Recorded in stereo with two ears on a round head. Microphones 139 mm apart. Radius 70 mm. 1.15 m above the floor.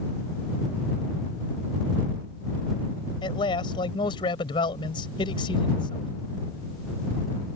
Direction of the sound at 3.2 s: 30° left (ahead or behind).